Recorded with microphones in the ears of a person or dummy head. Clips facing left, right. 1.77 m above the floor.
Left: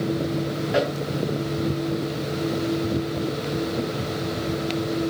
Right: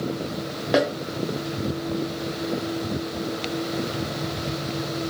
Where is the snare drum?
65° right (ahead or behind), 0.9 m.